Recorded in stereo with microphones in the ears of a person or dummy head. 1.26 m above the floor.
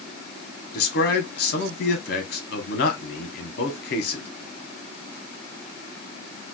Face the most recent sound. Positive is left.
turn(degrees=60)  # may be behind; listen again after turning